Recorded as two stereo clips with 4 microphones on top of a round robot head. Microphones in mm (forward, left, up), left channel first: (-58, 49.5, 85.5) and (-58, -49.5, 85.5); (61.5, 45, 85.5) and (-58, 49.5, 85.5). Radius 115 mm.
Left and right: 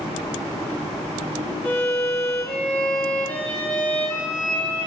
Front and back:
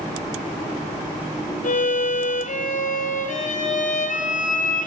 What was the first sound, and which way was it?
A violin, 15° left.